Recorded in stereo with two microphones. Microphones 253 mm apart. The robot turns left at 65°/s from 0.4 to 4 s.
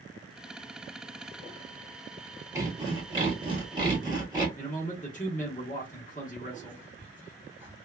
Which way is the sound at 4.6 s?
30° left (ahead or behind).